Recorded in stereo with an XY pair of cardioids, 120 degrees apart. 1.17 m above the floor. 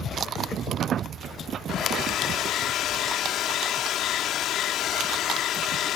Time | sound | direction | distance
1.7 | a hair dryer | 70° left | ?